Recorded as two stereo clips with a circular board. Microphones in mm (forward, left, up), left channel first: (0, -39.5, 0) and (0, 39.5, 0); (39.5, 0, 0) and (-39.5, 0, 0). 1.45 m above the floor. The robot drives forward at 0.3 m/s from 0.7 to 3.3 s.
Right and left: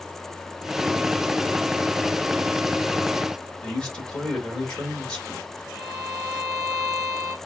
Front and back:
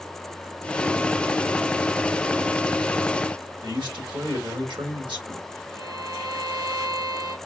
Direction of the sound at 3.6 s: 170° right.